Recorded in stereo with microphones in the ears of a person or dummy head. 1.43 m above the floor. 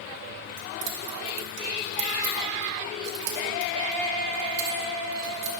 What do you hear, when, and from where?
0.6 s keys jangling: 65° right (ahead or behind), 2 m